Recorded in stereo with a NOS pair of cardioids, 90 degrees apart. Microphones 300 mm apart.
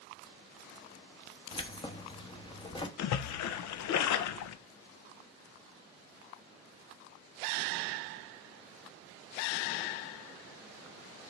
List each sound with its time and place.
1.5 s keys jangling: 15° left, 1.1 m
3.0 s a splash: 70° left, 0.7 m